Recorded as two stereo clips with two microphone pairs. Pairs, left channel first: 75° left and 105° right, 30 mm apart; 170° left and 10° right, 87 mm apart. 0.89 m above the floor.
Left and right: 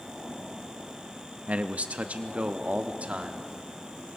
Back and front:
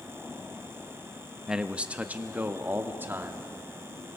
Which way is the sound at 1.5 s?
90° right.